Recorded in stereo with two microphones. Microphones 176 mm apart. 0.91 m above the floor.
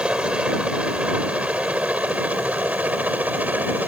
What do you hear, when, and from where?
0.0 s a helicopter: 5° right (ahead or behind); by 3.9 s 10° right (ahead or behind)